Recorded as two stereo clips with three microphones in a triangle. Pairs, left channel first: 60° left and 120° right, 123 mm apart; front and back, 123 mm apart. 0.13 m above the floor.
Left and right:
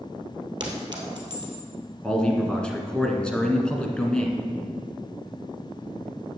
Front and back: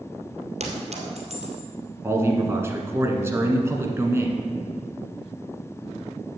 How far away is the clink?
About 2 m.